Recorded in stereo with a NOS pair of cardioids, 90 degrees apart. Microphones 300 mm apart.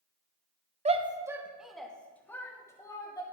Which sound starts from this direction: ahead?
A shout, at 0.8 s.